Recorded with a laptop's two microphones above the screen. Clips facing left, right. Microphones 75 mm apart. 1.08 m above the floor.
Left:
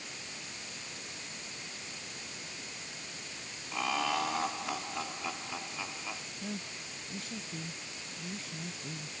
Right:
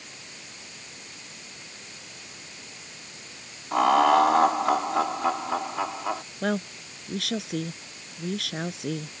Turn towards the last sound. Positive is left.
turn(degrees=-80)